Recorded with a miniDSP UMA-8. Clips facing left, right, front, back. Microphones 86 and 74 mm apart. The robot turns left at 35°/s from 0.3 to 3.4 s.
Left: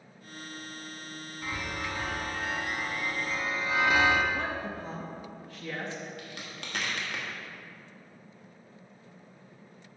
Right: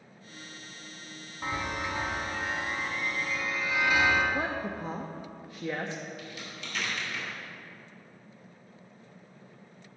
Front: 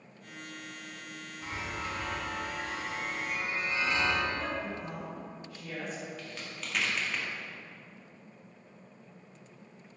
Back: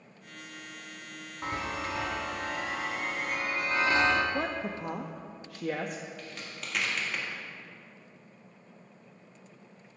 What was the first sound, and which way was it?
A chime, 145° right.